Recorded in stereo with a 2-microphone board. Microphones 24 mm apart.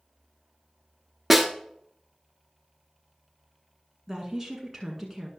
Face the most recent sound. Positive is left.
turn(degrees=-5)  # may be behind; listen again after turning